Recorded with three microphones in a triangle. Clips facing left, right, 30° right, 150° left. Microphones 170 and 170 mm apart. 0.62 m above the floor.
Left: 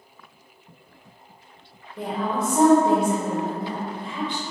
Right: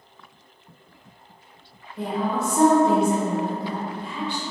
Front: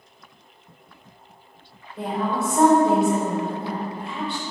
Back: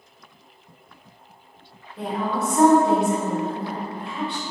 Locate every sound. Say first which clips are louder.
2.0 s a woman speaking: right 1 dB, front 1 dB; 60° left, 1.6 m